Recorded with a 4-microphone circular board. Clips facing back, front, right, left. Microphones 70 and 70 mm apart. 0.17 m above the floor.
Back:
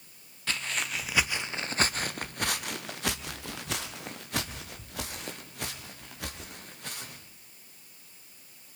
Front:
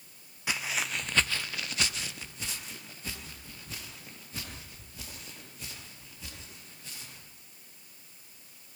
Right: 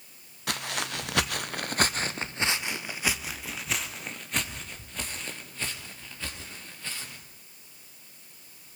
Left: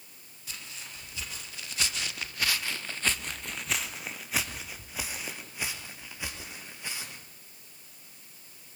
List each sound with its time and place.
0.5 s footsteps: 75° right, 1.7 m; by 7.2 s 160° left, 6 m